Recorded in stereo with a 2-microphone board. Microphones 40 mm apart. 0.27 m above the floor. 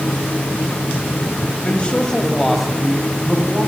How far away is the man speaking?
About 1.7 m.